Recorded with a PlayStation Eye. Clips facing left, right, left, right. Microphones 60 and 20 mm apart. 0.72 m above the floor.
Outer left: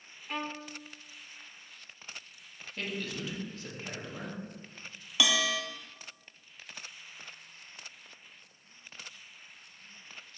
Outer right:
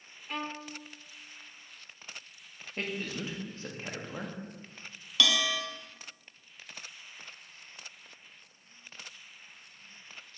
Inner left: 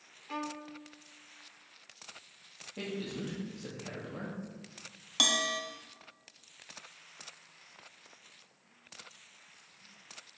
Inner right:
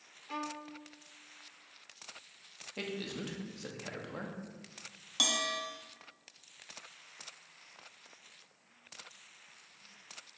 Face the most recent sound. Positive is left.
turn(degrees=15)  # may be behind; listen again after turning